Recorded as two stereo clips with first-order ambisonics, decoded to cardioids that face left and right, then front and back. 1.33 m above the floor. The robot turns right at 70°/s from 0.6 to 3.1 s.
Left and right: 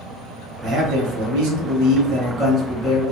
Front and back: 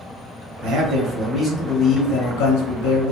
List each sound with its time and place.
0.6 s a man speaking: 150° right, 0.9 m; by 3.1 s 25° left, 0.9 m